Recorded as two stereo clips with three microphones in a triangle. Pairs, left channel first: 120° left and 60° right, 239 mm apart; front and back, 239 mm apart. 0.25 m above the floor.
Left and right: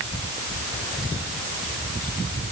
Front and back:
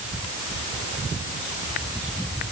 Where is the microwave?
No microwave in this recording.